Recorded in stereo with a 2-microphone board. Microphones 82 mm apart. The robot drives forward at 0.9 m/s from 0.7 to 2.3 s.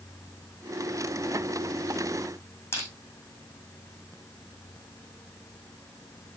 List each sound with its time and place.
2.7 s crushing: 25° left (ahead or behind), 5 m